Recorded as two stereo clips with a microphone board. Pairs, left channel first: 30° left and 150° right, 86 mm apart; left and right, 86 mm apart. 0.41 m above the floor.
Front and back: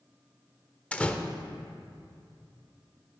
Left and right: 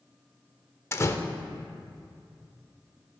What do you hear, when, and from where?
0.9 s a door slam: 95° left, 0.6 m